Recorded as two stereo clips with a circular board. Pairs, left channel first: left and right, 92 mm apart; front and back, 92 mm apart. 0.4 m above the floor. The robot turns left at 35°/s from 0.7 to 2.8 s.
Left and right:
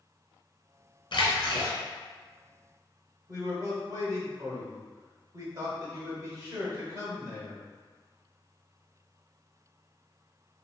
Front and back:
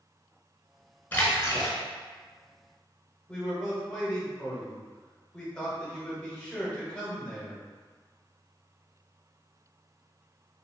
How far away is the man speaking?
About 1.1 m.